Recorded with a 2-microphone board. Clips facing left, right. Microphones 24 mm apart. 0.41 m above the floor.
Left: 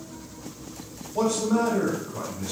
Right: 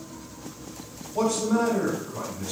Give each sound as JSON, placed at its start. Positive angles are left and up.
{"t": 1.1, "sound": "a man speaking", "side_deg": 15, "distance_m": 1.5}